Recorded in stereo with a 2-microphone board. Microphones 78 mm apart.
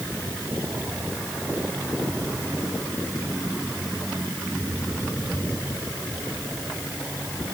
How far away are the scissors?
No scissors in this recording.